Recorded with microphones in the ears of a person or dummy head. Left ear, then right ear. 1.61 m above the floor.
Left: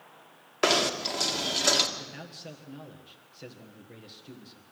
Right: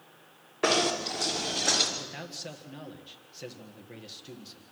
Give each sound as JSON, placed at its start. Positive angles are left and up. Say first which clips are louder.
{"t": 0.6, "sound": "knocking", "louder": "left 1 dB", "side_deg": 50, "distance_m": 2.5}
{"t": 2.0, "sound": "a man speaking", "louder": "right 3 dB", "side_deg": -10, "distance_m": 1.6}